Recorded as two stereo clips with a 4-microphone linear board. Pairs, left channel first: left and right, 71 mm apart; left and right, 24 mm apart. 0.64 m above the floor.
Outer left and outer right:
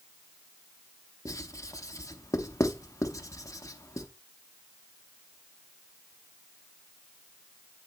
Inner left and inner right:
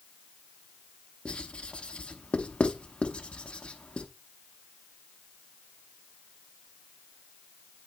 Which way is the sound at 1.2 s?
50° left (ahead or behind).